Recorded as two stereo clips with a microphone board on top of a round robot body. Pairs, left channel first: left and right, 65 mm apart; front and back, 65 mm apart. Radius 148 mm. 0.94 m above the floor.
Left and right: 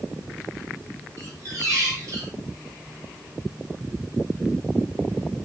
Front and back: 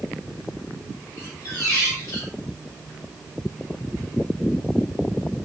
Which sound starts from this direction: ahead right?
A squeak, at 1.2 s.